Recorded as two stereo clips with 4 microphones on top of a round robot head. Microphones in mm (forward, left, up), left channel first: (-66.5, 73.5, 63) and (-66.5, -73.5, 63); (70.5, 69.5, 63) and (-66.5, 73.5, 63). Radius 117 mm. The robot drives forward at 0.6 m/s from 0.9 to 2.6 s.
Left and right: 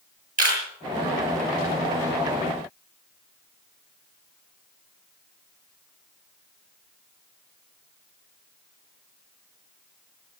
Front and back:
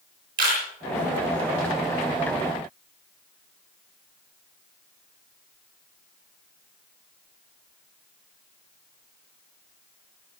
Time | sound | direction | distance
0.4 | a camera shutter | 115° right | 7 m